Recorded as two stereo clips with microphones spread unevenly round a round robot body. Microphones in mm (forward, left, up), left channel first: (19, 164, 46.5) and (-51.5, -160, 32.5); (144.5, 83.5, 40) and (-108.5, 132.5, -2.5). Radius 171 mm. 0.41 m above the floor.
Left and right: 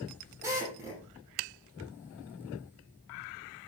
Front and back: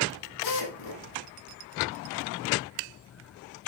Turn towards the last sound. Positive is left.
turn(degrees=-20)